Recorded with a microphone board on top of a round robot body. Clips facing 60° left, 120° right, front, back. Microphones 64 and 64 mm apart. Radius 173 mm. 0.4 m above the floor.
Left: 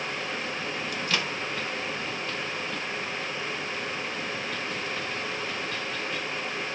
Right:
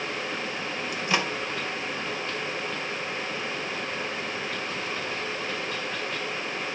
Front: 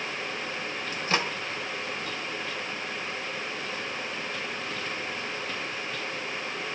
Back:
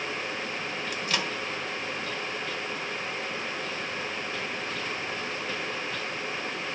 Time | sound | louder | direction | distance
0.9 | a microwave | right 4 dB, front 4 dB | 55° right | 1.1 m